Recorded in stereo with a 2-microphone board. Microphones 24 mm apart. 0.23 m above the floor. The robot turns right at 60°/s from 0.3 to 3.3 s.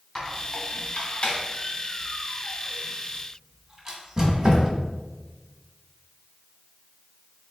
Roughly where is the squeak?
Left.